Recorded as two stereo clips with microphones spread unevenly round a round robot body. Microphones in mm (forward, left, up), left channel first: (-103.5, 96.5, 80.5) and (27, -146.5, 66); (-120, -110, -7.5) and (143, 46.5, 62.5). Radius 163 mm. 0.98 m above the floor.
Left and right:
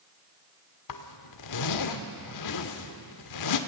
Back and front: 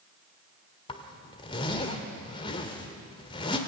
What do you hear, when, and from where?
0.9 s a zipper: 130° left, 1.5 m